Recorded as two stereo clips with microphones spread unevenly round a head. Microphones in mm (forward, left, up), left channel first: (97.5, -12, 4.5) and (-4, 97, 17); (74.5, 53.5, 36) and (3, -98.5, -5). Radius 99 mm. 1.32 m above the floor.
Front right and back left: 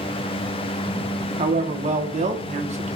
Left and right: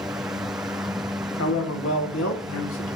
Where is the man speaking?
90° left, 1.3 m.